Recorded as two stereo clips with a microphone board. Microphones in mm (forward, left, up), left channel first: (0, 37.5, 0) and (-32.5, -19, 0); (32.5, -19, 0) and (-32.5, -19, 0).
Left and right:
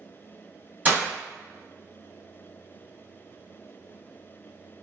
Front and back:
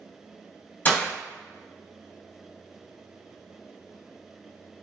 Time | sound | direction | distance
0.8 | breaking glass | 60° right | 1.5 m